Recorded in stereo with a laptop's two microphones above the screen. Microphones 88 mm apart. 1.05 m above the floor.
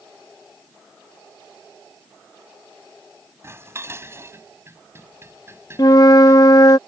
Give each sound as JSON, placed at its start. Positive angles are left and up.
{"t": 3.4, "sound": "dishes clattering", "side_deg": -30}
{"t": 5.8, "sound": "a flute", "side_deg": 45}